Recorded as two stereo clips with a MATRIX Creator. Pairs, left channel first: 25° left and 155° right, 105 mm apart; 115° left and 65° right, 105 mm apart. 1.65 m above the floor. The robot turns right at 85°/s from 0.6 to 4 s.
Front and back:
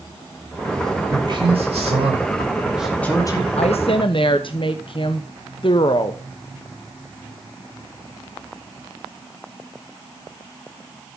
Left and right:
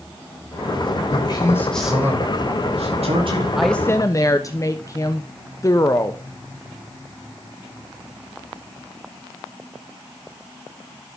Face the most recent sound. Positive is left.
turn(degrees=55)